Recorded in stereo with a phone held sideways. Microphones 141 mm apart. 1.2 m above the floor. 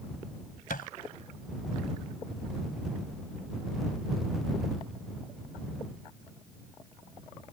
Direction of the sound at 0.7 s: 85° left.